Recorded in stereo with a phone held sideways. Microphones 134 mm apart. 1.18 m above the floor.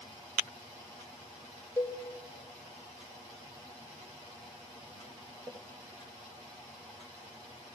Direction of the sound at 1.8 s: 20° left (ahead or behind).